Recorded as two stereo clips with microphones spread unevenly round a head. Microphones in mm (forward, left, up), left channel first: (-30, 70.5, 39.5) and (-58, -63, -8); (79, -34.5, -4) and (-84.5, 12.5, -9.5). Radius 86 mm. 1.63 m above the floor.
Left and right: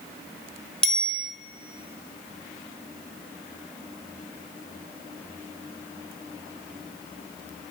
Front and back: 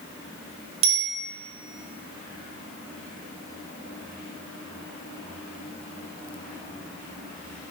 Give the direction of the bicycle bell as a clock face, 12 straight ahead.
7 o'clock.